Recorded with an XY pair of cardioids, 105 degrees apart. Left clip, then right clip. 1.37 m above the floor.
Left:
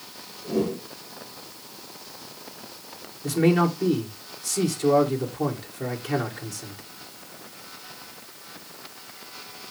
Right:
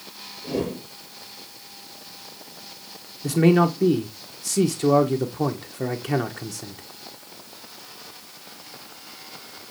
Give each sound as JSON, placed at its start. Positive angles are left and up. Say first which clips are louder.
{"t": 0.4, "sound": "a whoosh", "louder": "left 1 dB", "azimuth_deg": -50, "distance_m": 5.0}
{"t": 3.2, "sound": "a man speaking", "louder": "right 3 dB", "azimuth_deg": -45, "distance_m": 1.3}